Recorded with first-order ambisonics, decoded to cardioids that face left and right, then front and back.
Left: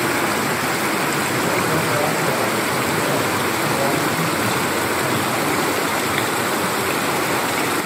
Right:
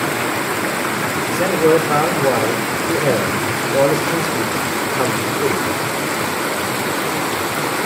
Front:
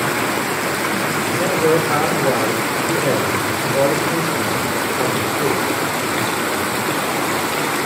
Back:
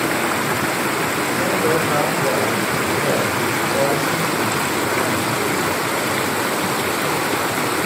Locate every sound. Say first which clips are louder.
1.3 s a man speaking: right 5 dB, front 4 dB; 70° right, 4 m